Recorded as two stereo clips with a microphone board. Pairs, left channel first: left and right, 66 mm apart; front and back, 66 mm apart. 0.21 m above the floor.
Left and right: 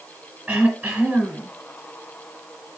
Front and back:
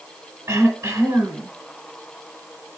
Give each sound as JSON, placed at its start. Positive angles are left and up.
{"t": 0.5, "sound": "throat clearing", "azimuth_deg": -155, "distance_m": 1.9}